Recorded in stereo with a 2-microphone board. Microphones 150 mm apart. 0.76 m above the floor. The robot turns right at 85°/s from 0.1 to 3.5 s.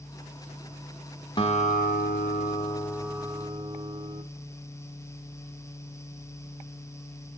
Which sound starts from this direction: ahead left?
A guitar, at 1.4 s.